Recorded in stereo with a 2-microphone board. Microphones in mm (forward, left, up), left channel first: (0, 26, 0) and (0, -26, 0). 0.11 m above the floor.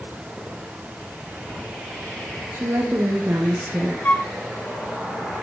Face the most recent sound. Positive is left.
turn(degrees=35)  # may be behind; listen again after turning